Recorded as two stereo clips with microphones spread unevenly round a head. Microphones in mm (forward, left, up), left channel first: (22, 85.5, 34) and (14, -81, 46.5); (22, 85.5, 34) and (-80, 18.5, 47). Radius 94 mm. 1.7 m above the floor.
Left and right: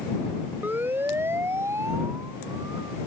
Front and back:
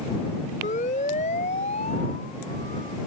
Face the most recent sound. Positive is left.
turn(degrees=-25)